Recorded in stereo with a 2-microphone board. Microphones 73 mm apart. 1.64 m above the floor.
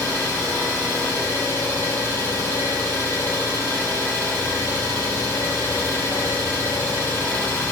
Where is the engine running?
60° left (ahead or behind), 1.7 m.